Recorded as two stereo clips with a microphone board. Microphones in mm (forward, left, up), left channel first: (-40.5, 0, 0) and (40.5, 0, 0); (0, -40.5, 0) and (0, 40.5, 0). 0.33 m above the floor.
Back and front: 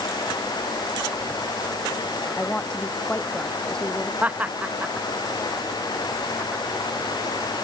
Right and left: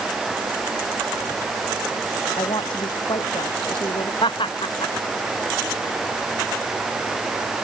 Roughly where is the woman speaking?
Right.